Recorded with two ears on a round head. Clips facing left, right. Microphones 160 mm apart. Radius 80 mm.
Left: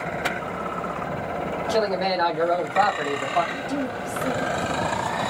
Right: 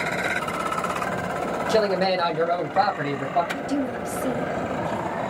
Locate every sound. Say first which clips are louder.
1.7 s a man speaking: right 2 dB; 30° right (ahead or behind), 1.4 m; by 3.4 s 20° right (ahead or behind), 1.3 m
3.5 s a woman speaking: right 2 dB; 20° right (ahead or behind), 0.9 m